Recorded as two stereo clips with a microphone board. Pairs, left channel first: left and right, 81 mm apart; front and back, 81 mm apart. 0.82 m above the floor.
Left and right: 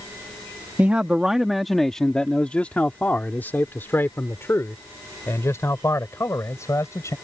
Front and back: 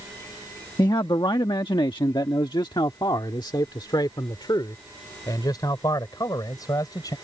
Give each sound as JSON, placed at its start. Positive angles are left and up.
{"t": 0.8, "sound": "a man speaking", "azimuth_deg": -20}